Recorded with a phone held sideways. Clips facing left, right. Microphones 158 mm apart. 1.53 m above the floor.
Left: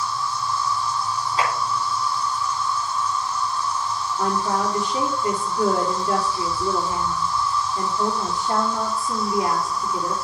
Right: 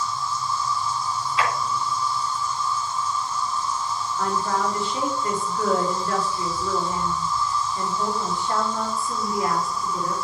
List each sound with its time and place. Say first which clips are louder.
0.0 s an insect: left 1 dB; 70° left (ahead or behind), 1.8 m
1.4 s a clap: even; 40° left (ahead or behind), 3 m
4.2 s a woman speaking: left 2 dB; 20° left (ahead or behind), 4 m